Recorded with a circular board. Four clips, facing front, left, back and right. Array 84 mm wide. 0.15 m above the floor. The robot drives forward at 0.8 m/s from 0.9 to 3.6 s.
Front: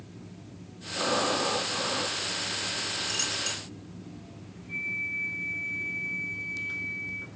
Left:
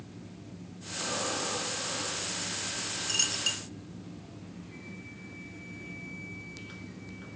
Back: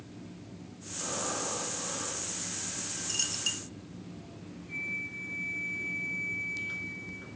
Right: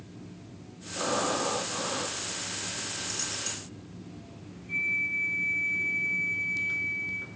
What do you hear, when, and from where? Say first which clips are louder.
1.0 s breathing: right 6 dB, front 9 dB; 30° right, 5.5 m; by 2.2 s 35° right, 4.5 m
3.1 s a dropped coin: left 1 dB, front 6 dB; 80° left, 0.6 m; by 3.6 s 125° left, 0.7 m
4.7 s a flute: right 11 dB, front 5 dB; 75° right, 1.9 m